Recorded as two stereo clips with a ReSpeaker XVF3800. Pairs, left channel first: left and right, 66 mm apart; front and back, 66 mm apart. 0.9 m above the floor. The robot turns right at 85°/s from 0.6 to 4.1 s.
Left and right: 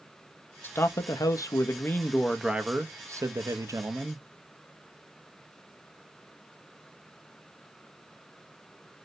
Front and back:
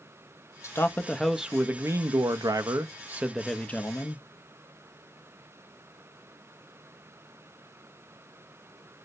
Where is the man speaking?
35° left, 0.7 m; by 4.2 s 30° right, 0.7 m.